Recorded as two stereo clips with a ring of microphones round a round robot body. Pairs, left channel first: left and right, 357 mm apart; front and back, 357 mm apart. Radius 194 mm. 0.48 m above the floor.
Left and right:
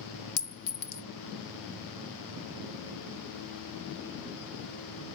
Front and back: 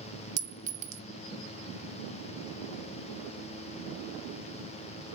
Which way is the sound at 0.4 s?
115° left.